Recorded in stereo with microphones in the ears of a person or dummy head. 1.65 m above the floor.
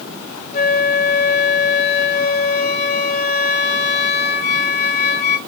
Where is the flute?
40° left (ahead or behind), 1.5 m.